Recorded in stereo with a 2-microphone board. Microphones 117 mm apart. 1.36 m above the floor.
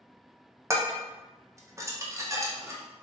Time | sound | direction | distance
0.7 | dishes clattering | 25° right (ahead or behind) | 0.5 m